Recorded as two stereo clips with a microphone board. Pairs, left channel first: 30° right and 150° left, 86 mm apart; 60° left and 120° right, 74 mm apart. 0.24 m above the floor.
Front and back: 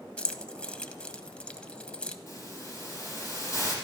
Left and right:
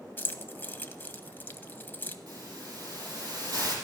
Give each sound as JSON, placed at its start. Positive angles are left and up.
{"t": 0.2, "sound": "keys jangling", "azimuth_deg": 35, "distance_m": 0.8}
{"t": 2.3, "sound": "a hiss", "azimuth_deg": -85, "distance_m": 5.0}